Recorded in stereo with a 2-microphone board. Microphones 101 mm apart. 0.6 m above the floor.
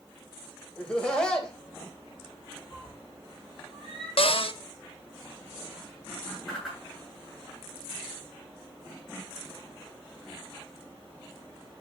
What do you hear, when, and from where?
0.8 s laughter: 10° left (ahead or behind), 3.5 m
2.7 s a cat meowing: 5° left (ahead or behind), 8.5 m
4.2 s a cupboard door: 65° left (ahead or behind), 0.9 m
6.5 s a whoosh: centre (ahead or behind), 10 m